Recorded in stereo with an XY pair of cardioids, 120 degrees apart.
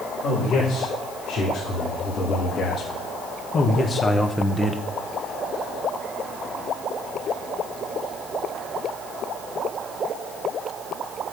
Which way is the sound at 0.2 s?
65° left.